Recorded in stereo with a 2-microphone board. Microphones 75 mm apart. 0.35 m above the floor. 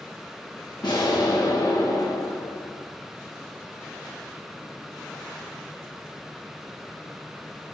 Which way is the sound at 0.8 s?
65° left (ahead or behind).